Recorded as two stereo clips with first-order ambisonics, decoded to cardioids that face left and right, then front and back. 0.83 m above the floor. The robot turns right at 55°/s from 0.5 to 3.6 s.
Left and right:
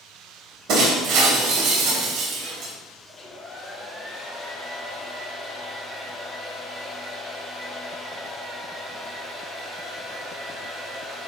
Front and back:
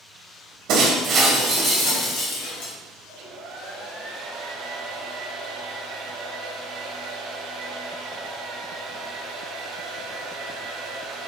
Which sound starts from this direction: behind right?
Breaking glass, at 0.7 s.